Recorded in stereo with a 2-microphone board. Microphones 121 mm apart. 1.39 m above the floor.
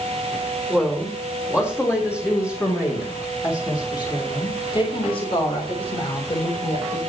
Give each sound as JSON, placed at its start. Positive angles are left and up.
{"t": 0.7, "sound": "a woman speaking", "side_deg": 10, "distance_m": 3.5}